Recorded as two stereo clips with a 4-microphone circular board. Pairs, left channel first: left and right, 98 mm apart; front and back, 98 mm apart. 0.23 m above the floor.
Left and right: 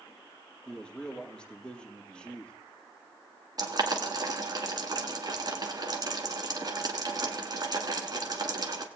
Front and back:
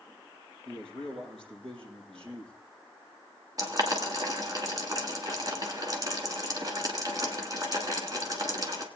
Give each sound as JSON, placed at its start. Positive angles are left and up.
{"t": 0.7, "sound": "a man speaking", "azimuth_deg": 170, "distance_m": 6.0}
{"t": 3.6, "sound": "boiling", "azimuth_deg": -135, "distance_m": 1.7}